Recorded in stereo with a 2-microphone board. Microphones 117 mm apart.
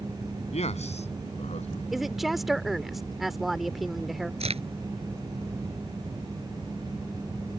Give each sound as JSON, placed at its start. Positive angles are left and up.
{"t": 0.5, "sound": "a man speaking", "side_deg": 70}
{"t": 1.9, "sound": "a woman speaking", "side_deg": 0}
{"t": 4.4, "sound": "a crack", "side_deg": -65}